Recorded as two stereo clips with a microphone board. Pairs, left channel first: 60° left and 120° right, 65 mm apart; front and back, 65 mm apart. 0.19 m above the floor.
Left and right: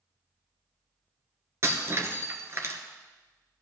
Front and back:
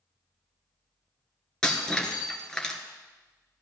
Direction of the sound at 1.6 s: 80° right.